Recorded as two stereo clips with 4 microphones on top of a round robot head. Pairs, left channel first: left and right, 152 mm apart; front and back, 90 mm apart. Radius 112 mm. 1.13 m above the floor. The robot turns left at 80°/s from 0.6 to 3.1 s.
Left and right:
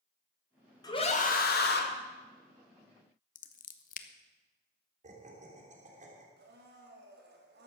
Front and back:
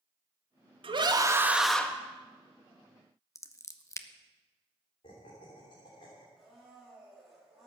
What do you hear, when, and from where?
0.8 s a scream: 160° left, 2 m; by 1.9 s 75° left, 2 m
3.4 s scissors: 60° left, 1.0 m
5.0 s laughter: 50° right, 3 m
6.4 s a blender: 90° right, 3 m